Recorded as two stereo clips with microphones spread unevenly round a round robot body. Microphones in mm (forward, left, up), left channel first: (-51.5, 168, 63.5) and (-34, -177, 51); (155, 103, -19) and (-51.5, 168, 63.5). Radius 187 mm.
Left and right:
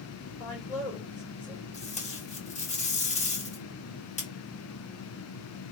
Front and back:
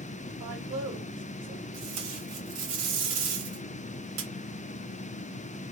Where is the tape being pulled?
160° left, 2 m.